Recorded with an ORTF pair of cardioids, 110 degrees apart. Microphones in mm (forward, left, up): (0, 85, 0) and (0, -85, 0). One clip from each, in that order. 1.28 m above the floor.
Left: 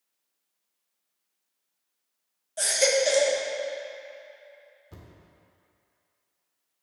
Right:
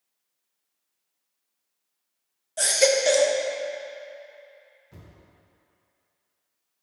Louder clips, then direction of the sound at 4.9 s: Left 1 dB; 45° left.